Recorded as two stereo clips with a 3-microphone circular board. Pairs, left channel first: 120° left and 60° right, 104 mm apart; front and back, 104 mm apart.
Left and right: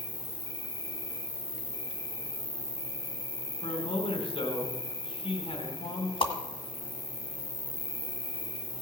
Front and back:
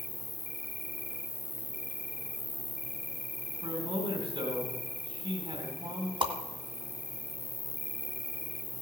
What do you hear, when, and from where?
0.0 s an insect: 90° right, 1.3 m
3.6 s a man speaking: 150° left, 3 m
6.2 s a whoosh: 145° left, 1.8 m